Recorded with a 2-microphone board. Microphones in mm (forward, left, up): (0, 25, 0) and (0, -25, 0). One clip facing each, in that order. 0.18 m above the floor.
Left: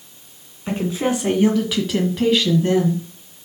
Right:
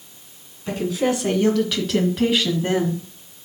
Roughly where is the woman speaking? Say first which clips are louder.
Even; left.